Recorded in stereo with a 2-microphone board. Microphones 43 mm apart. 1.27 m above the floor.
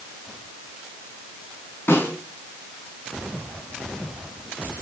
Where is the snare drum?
65° left (ahead or behind), 5 m.